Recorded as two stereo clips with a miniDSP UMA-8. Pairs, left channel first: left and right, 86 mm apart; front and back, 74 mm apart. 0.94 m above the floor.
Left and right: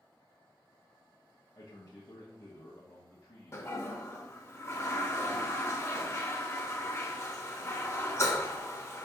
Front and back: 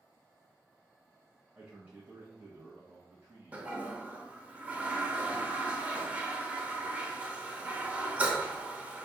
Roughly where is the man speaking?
Behind left.